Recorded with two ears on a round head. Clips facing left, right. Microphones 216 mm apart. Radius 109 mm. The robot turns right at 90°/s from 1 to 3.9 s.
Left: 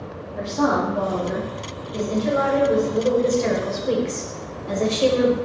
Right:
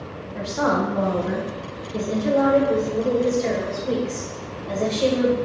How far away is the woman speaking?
About 1.1 m.